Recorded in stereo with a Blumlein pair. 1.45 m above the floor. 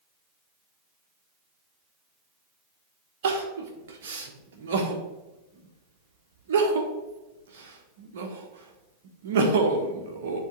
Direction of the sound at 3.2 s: 60° right.